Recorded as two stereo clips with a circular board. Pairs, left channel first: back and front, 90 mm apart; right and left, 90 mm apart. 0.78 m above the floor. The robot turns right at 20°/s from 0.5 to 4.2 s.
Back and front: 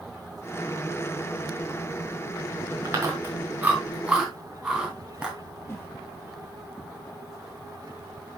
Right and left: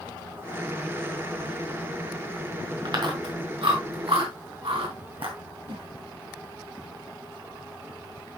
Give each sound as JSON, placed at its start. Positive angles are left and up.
{"t": 2.9, "sound": "chewing", "azimuth_deg": 55, "distance_m": 3.0}
{"t": 5.7, "sound": "a whoosh", "azimuth_deg": 120, "distance_m": 2.0}